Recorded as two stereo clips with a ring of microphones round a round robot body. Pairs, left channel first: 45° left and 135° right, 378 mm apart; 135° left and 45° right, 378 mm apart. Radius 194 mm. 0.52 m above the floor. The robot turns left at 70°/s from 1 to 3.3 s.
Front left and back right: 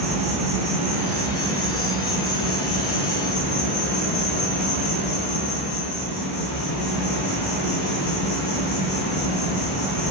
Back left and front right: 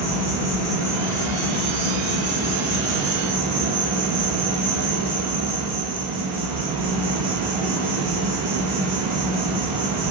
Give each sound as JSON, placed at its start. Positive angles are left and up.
{"t": 0.0, "sound": "an insect", "azimuth_deg": 150, "distance_m": 1.5}